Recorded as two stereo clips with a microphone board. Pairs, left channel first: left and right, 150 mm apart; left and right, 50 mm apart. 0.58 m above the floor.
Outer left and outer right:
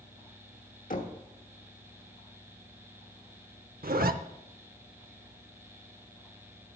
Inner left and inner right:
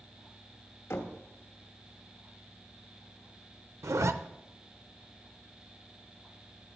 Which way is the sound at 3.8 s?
80° right.